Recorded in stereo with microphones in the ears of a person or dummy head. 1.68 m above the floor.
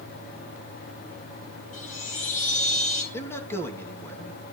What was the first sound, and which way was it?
A chime, 40° left (ahead or behind).